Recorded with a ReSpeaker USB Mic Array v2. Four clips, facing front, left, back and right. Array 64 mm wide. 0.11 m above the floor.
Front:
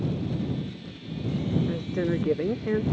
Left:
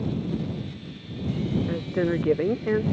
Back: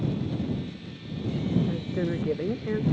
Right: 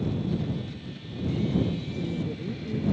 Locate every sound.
1.7 s a woman speaking: 80° left